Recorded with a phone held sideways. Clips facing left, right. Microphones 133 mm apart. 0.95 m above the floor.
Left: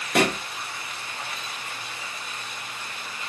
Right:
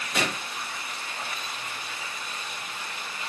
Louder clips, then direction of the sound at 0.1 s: Left 8 dB; 60° left (ahead or behind).